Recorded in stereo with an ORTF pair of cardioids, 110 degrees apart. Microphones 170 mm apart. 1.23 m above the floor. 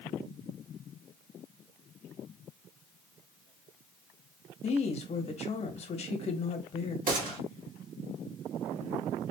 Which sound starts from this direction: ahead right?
A gunshot, at 7.1 s.